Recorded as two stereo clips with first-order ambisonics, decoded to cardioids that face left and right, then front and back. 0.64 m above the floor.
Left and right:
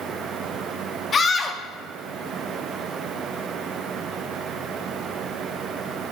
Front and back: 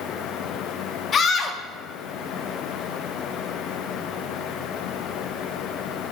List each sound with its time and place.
1.1 s a scream: 40° left, 0.9 m